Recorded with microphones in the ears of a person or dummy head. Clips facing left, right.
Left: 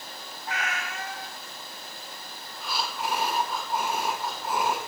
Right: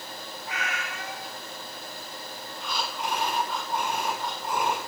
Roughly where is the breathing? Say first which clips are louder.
Left 1 dB; centre.